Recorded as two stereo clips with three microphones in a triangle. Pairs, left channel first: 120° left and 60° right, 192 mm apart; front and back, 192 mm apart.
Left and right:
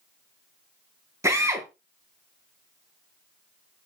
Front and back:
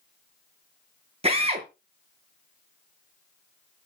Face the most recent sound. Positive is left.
turn(degrees=-130)